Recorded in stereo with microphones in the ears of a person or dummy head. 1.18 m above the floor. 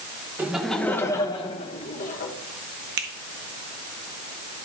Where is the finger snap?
60° right (ahead or behind), 1.2 m.